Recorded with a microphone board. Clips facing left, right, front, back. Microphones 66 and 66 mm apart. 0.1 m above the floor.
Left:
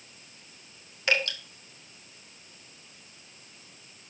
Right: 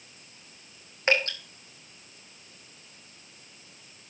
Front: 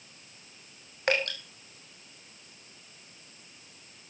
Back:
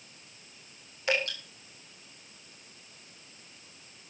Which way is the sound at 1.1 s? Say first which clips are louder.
Right 2 dB, front 2 dB; 35° right.